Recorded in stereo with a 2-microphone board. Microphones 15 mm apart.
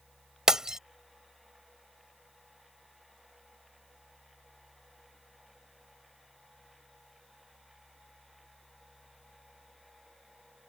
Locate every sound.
0.5 s breaking glass: 40° right (ahead or behind)